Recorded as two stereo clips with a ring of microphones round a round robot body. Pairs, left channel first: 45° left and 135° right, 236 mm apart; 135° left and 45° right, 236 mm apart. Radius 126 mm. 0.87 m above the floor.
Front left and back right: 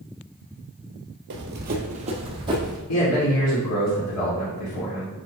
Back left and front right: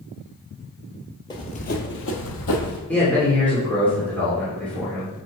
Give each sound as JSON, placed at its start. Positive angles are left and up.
{"t": 1.3, "sound": "running footsteps", "azimuth_deg": -155, "distance_m": 1.2}
{"t": 2.9, "sound": "a man speaking", "azimuth_deg": 50, "distance_m": 2.5}